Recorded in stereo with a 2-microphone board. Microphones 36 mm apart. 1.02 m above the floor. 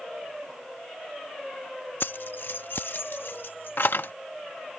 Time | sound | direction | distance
2.0 | keys jangling | 70° left (ahead or behind) | ?